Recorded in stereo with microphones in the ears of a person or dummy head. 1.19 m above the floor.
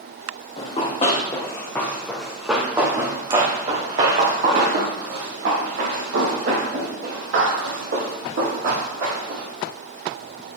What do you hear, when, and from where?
0.6 s running footsteps: 35° left (ahead or behind), 4 m; by 9.5 s 85° right, 9.5 m